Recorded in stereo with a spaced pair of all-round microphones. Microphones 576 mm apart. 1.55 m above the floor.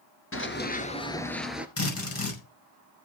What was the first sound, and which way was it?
Running footsteps, 20° left (ahead or behind).